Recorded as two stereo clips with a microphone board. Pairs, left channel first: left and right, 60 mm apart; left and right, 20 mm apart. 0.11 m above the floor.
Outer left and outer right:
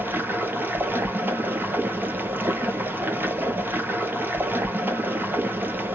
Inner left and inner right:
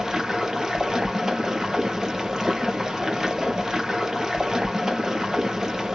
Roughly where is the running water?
Right.